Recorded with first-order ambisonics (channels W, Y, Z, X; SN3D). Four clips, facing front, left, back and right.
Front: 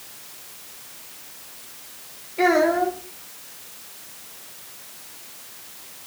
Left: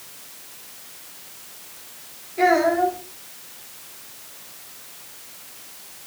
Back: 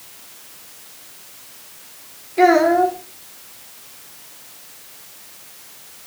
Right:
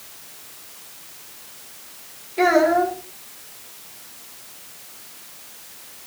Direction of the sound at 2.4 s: 165° right.